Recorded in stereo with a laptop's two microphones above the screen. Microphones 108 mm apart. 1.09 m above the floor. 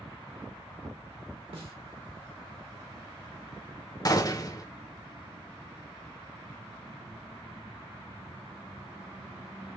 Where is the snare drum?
55° right (ahead or behind), 1.8 m.